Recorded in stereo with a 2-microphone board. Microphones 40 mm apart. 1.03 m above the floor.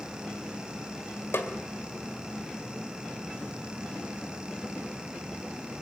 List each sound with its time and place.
1.3 s a snare drum: 75° left (ahead or behind), 2 m